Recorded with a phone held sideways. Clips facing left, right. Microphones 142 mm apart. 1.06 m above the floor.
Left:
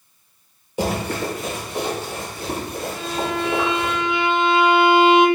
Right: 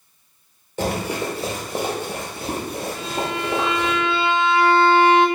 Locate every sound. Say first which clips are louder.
0.8 s running footsteps: left 1 dB; 15° left (ahead or behind), 1.1 m; by 3.9 s 75° right (ahead or behind), 4.5 m
3.0 s a violin: left 4 dB; 15° left (ahead or behind), 0.5 m